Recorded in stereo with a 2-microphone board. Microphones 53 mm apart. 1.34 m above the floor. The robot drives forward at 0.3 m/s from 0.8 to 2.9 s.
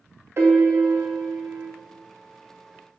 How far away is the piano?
About 0.5 m.